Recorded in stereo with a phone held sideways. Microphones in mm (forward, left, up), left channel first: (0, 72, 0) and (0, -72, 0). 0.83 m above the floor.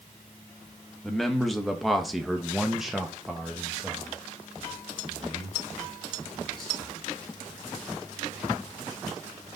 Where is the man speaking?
Centre (ahead or behind), 1.1 m; by 6.9 s 5° right (ahead or behind), 2.5 m.